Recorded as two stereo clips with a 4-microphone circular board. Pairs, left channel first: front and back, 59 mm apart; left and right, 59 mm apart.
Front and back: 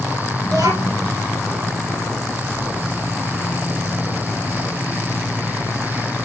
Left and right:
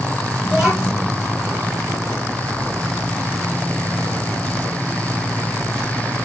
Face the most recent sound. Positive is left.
turn(degrees=-170)